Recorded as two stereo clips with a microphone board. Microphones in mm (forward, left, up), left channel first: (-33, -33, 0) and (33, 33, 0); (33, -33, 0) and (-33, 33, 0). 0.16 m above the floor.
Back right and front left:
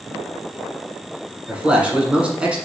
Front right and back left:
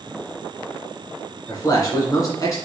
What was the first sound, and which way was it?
A man speaking, 25° right.